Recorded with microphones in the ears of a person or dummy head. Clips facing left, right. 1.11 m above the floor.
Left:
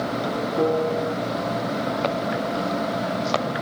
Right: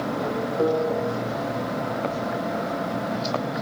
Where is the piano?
20° left (ahead or behind), 3.5 m.